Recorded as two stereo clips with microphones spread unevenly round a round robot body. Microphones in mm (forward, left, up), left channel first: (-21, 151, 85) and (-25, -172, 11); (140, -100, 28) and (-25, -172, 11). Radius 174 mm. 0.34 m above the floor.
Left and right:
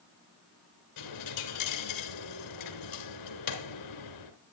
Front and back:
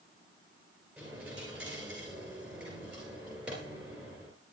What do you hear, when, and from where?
1.0 s a dropped coin: 115° left, 2.5 m